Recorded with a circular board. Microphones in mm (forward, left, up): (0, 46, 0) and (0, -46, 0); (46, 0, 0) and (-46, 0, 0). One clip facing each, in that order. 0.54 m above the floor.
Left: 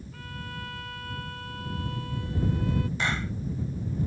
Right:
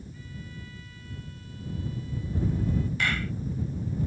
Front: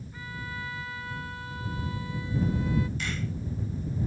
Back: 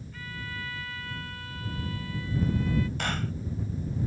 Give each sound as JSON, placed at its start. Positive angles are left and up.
{"t": 0.1, "sound": "a violin", "azimuth_deg": 70}
{"t": 3.0, "sound": "a clap", "azimuth_deg": 155}